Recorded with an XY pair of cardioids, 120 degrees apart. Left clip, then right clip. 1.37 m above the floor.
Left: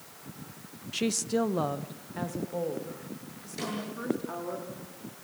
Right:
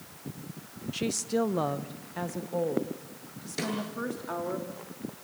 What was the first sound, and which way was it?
A woman speaking, 20° left.